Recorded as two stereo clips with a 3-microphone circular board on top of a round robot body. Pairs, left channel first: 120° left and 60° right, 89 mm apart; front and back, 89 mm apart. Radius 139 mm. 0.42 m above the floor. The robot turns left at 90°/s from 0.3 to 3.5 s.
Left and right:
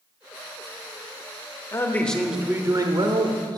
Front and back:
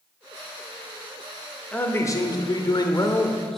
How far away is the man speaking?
About 1.1 m.